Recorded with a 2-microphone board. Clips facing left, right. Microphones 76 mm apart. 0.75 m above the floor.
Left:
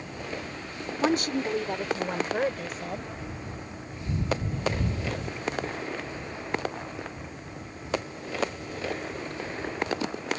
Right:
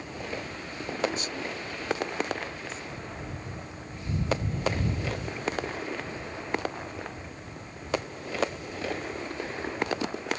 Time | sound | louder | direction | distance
1.0 | a woman speaking | left 7 dB | 65° left (ahead or behind) | ?